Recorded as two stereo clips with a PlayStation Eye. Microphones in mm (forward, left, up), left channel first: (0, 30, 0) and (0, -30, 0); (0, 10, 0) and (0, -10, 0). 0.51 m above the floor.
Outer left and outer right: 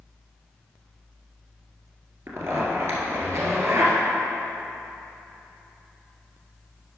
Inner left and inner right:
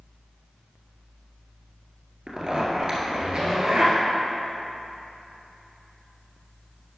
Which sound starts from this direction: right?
A zipper, at 2.3 s.